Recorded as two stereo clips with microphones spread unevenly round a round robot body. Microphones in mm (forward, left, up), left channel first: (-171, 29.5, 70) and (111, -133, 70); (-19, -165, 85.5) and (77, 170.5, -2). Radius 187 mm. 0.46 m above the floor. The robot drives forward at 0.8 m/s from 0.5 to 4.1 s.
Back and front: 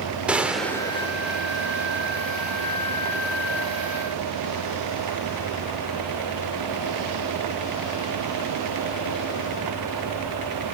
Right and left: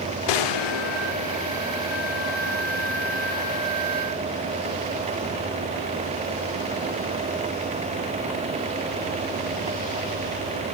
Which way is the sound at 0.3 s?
115° right.